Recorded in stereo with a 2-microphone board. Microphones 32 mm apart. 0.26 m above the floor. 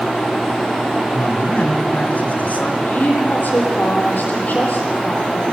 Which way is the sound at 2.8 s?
65° left (ahead or behind).